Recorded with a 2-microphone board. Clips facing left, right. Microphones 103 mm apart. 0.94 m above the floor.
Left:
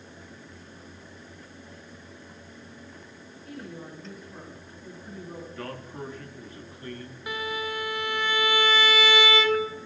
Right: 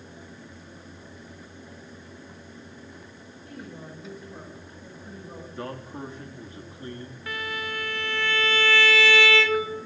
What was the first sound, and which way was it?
A woman speaking, 20° right (ahead or behind).